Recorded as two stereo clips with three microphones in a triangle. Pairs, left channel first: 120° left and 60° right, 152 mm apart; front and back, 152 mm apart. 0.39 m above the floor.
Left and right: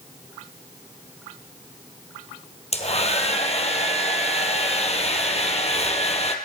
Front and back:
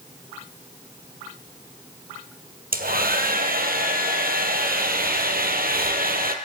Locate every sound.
2.7 s a hair dryer: 165° left, 2.5 m